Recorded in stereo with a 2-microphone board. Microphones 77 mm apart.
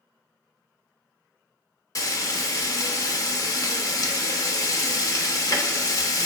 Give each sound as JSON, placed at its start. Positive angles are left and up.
{"t": 1.9, "sound": "frying", "side_deg": 50, "distance_m": 0.7}